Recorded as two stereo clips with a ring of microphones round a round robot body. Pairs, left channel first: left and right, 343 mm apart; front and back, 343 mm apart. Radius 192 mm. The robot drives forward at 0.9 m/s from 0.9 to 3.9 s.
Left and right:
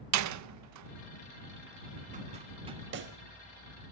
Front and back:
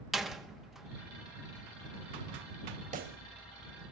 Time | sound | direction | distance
0.1 | a door slam | 90° right | 0.6 m
2.9 | a pop | 120° right | 0.7 m